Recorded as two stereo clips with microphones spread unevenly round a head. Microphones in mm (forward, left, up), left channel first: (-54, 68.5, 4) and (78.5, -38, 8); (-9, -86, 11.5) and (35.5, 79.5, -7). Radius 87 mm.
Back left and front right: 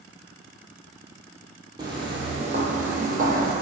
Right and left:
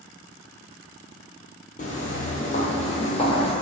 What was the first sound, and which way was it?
Footsteps, 100° right.